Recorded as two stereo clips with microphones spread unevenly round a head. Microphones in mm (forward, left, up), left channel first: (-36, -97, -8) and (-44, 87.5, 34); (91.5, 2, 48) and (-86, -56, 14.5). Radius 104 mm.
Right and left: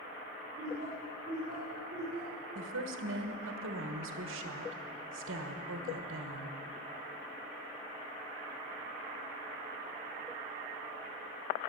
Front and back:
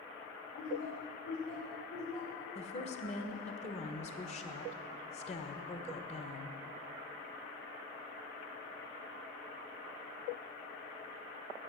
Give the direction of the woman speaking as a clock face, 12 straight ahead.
9 o'clock.